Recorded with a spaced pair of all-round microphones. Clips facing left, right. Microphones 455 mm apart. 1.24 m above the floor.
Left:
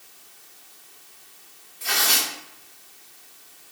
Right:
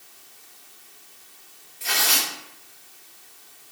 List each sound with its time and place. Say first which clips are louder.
1.8 s tearing paper: even; 25° right (ahead or behind), 1.9 m